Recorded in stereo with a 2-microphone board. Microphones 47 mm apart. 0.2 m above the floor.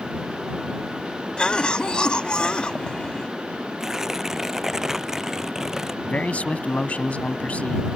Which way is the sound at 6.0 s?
30° left (ahead or behind).